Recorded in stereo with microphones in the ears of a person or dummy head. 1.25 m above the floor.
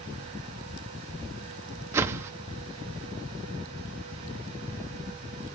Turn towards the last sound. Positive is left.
turn(degrees=-15)  # may be behind; listen again after turning